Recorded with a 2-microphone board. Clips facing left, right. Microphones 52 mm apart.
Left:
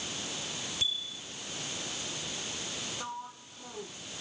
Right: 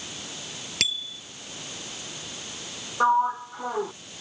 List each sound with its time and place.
0.8 s a bicycle bell: 75° right (ahead or behind)
3.0 s a sliding door: 90° right